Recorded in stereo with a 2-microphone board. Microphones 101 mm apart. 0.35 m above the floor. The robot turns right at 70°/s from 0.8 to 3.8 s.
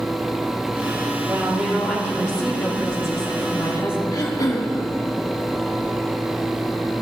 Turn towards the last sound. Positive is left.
turn(degrees=40)  # may be behind; listen again after turning